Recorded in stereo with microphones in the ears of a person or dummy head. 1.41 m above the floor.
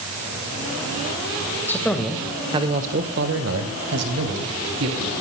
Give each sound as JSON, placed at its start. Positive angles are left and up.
{"t": 1.7, "sound": "a man speaking", "side_deg": 15, "distance_m": 1.9}